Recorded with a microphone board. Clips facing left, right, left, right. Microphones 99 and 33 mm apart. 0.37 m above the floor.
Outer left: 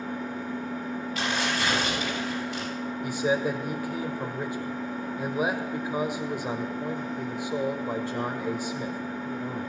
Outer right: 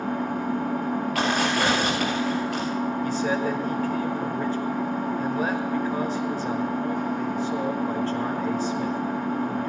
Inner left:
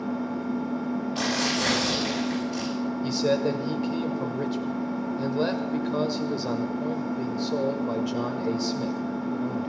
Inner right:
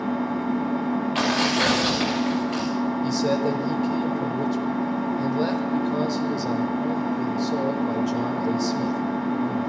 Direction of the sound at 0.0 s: 70° right (ahead or behind).